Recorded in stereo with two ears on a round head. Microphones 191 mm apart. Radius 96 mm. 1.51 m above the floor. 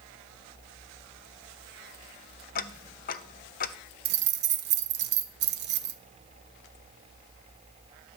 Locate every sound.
2.5 s ticking: 40° left (ahead or behind), 0.8 m
4.0 s keys jangling: 50° right (ahead or behind), 1.0 m